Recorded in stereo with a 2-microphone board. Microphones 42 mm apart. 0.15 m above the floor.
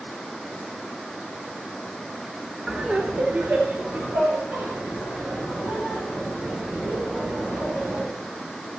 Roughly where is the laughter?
Centre.